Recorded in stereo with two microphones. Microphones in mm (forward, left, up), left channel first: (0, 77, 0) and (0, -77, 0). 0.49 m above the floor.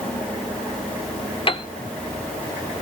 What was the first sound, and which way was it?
A piano, 35° left (ahead or behind).